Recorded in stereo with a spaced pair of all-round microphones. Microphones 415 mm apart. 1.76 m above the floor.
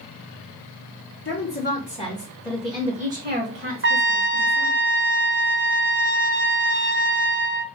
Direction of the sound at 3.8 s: 30° right (ahead or behind).